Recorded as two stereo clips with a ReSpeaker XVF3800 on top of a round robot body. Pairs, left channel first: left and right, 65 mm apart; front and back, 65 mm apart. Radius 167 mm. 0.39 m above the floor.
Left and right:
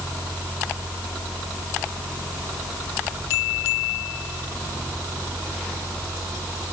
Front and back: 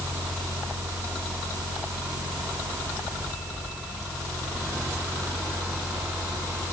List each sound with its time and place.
Only background noise.